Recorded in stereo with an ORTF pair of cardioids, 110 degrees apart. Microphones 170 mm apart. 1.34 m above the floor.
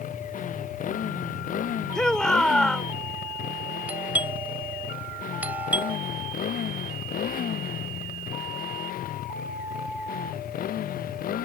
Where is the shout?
5° left.